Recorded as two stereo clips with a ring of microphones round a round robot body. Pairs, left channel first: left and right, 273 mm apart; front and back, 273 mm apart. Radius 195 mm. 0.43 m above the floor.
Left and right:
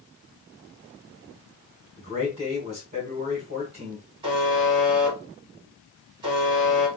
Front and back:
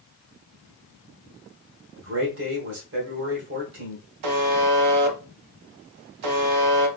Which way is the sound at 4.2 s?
170° right.